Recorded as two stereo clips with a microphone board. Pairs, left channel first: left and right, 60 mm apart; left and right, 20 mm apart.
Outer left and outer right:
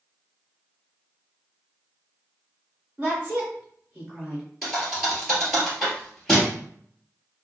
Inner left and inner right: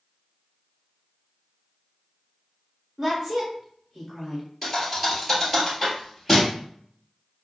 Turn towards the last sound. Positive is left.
turn(degrees=5)  # may be behind; listen again after turning